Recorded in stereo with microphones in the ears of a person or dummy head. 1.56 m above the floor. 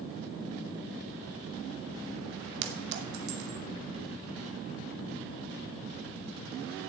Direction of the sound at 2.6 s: 60° right (ahead or behind).